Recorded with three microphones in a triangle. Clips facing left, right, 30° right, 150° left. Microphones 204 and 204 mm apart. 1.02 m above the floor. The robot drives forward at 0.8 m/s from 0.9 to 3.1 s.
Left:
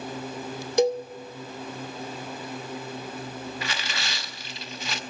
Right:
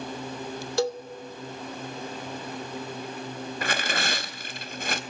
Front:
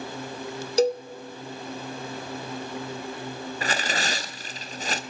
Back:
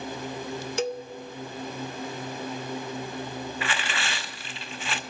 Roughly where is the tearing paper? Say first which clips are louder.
Right 5 dB, front 3 dB; right.